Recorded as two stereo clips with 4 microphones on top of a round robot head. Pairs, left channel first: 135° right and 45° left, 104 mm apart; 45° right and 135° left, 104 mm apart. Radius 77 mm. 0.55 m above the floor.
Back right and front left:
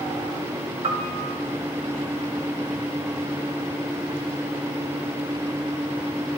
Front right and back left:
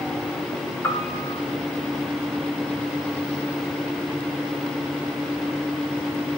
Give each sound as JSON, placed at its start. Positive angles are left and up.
{"t": 0.8, "sound": "a piano", "azimuth_deg": 20, "distance_m": 1.2}